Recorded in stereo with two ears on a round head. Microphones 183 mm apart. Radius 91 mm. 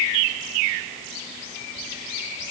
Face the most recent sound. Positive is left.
No sound to turn to.